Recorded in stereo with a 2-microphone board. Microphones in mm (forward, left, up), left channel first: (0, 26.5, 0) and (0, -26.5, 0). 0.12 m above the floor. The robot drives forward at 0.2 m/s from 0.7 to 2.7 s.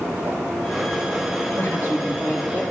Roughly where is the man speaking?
Left.